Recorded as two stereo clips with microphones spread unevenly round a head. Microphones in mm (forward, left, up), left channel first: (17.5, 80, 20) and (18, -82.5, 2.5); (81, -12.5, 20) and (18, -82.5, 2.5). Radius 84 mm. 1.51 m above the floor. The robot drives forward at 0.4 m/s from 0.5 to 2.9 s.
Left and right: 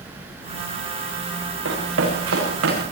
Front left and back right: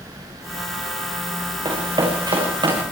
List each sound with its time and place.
1.6 s running footsteps: 85° right, 8.5 m; by 2.8 s 95° right, 9 m